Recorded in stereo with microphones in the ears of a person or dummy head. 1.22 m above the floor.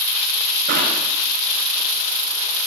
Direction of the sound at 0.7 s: 65° right (ahead or behind).